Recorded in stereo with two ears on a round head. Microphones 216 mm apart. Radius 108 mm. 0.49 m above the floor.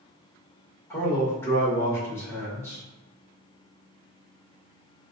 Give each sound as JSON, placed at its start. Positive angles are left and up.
{"t": 0.9, "sound": "a man speaking", "side_deg": 10, "distance_m": 1.8}